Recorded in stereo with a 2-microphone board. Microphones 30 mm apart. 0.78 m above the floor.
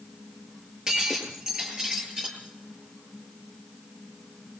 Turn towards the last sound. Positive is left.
turn(degrees=-30)  # may be behind; listen again after turning